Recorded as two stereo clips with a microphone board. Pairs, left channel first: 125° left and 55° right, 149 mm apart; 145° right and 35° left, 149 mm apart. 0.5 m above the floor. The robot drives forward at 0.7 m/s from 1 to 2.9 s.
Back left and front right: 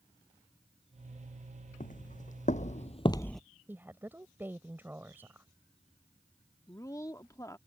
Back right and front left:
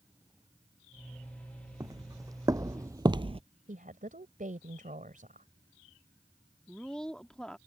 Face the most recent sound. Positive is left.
turn(degrees=135)